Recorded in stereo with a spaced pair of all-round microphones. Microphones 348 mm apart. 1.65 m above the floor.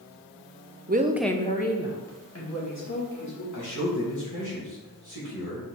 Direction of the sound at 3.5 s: 55° left (ahead or behind).